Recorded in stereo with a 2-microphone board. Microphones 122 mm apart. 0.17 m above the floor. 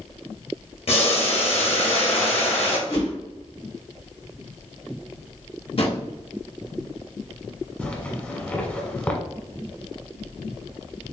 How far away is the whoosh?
About 1.5 m.